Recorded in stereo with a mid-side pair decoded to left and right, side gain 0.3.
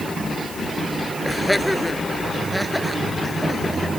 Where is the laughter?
10° left.